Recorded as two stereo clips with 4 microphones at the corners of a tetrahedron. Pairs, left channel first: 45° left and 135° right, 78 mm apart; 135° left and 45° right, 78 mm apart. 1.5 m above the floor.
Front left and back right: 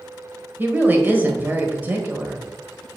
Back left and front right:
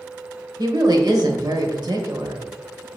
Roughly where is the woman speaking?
Right.